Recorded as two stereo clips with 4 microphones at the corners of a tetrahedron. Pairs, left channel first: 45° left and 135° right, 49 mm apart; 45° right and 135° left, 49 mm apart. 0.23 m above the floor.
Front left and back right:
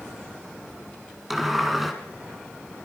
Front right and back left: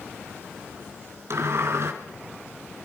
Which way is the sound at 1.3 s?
140° left.